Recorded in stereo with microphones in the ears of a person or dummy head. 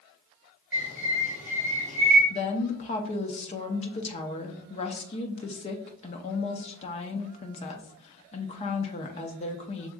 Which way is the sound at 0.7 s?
10° right (ahead or behind).